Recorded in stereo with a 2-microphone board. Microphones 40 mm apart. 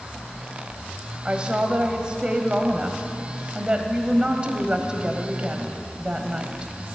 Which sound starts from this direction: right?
A woman speaking, at 1.2 s.